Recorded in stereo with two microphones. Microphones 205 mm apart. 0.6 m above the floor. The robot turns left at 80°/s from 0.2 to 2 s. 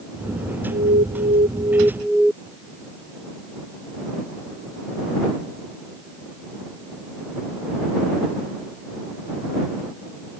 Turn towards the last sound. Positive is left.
turn(degrees=180)